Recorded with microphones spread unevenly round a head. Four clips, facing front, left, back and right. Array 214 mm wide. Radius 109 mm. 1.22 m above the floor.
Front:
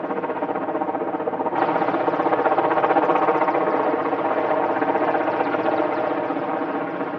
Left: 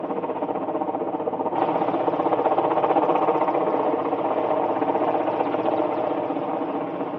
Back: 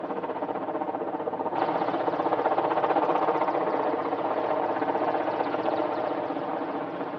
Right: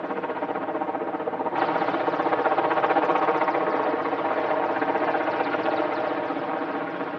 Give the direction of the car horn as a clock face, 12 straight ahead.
No car horn in this recording.